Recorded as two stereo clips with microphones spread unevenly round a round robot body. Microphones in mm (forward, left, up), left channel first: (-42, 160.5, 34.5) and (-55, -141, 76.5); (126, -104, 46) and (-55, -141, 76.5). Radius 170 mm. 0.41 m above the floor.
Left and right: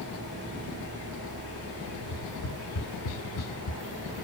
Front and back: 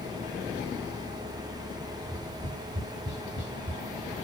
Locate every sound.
1.9 s tapping: 100° left, 1.7 m